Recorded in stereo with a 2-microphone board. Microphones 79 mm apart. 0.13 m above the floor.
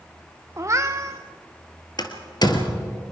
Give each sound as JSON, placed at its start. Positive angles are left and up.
{"t": 0.6, "sound": "a cat meowing", "side_deg": -40, "distance_m": 1.4}
{"t": 2.0, "sound": "a door slam", "side_deg": 60, "distance_m": 1.7}